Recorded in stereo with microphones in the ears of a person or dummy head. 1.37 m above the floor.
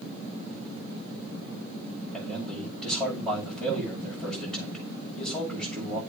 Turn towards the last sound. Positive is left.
turn(degrees=0)  # may be behind; listen again after turning